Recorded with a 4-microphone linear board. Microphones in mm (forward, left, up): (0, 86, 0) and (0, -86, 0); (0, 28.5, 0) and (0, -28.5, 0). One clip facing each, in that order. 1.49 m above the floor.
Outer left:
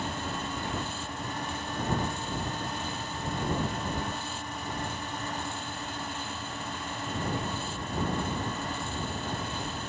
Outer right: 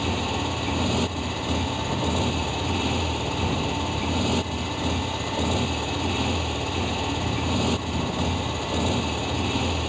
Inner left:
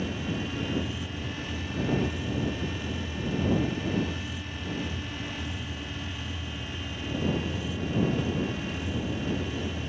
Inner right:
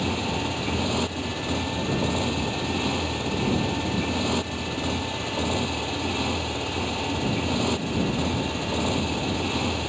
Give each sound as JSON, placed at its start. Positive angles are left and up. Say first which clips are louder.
{"t": 0.0, "sound": "a motorcycle", "louder": "outer right 8 dB, inner right 5 dB", "side_deg": -85}